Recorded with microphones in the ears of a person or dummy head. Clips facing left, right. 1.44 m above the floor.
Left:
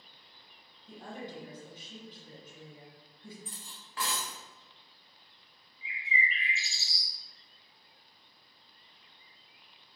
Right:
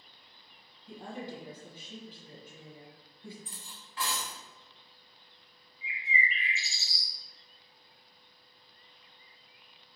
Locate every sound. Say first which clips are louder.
0.9 s a woman speaking: right 2 dB; 15° right (ahead or behind), 1.8 m
3.5 s cutlery clinking: left 1 dB; 35° left (ahead or behind), 0.8 m
5.8 s a bird: right 1 dB; 5° right (ahead or behind), 0.6 m